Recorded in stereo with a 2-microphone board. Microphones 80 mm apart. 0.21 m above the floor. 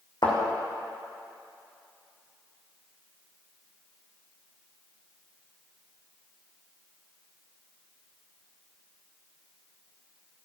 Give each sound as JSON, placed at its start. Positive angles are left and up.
{"t": 0.2, "sound": "a thud", "side_deg": 70, "distance_m": 4.0}